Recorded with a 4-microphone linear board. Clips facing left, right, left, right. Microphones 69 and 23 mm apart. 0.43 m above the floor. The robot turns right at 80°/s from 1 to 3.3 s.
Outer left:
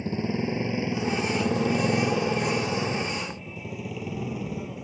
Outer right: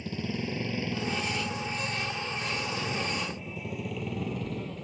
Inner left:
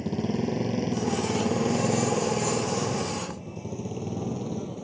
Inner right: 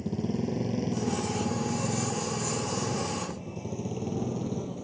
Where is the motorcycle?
30° left (ahead or behind); by 4.8 s 10° left (ahead or behind).